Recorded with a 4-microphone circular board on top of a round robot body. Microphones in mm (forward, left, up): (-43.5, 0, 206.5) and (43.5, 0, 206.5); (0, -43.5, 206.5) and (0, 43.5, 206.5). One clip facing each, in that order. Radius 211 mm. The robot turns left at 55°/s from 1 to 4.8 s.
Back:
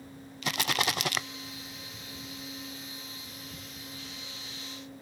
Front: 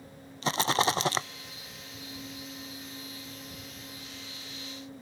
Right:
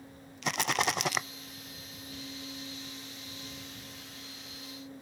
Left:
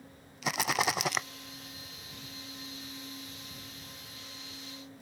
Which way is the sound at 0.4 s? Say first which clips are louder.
Front 4 dB, even; 5° left.